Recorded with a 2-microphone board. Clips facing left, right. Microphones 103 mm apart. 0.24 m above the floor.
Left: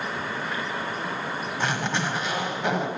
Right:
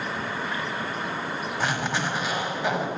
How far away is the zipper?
About 1.2 m.